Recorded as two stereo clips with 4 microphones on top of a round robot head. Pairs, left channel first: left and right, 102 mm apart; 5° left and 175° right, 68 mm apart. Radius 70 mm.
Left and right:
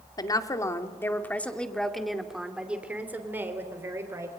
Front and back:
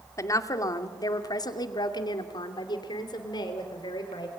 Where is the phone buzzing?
I don't hear a phone buzzing.